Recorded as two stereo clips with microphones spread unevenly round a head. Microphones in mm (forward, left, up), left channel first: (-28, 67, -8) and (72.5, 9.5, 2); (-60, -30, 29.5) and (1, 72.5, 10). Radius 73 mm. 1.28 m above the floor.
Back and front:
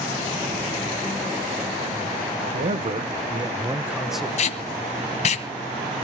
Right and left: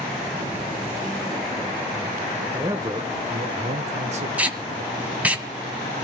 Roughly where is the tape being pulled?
Behind left.